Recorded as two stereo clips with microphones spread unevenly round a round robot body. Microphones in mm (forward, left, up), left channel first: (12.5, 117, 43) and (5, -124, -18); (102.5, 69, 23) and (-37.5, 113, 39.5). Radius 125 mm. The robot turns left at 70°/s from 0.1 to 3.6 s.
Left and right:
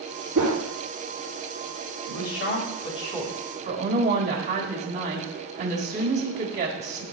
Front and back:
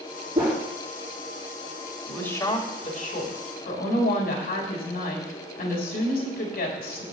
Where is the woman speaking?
70° left, 3.5 m; by 7.0 s 35° right, 3.5 m.